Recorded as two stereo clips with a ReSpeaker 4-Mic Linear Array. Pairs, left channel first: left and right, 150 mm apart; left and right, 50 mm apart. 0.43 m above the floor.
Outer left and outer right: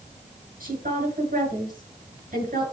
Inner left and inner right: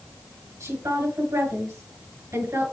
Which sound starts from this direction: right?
A woman speaking, at 0.6 s.